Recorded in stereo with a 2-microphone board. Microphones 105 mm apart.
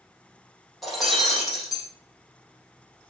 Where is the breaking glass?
Centre (ahead or behind), 5 m.